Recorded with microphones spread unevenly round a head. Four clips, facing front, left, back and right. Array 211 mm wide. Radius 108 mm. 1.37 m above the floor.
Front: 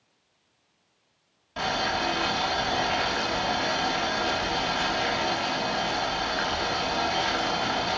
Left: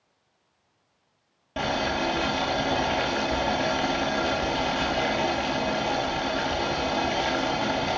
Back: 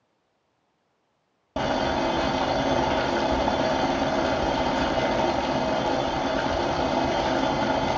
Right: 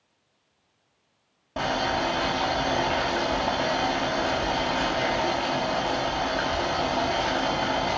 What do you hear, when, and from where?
1.6 s boiling: straight behind, 2.5 m